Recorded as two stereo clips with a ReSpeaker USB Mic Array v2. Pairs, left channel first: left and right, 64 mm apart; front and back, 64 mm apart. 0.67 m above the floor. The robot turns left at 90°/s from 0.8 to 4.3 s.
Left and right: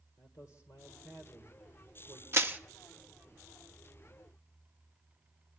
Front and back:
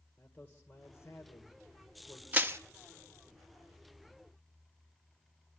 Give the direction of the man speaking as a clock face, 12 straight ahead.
10 o'clock.